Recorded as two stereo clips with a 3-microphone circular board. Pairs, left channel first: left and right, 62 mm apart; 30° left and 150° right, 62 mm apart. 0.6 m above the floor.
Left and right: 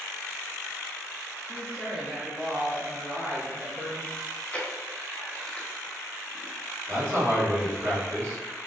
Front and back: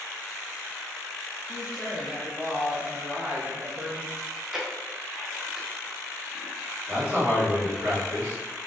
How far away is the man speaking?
About 1.6 m.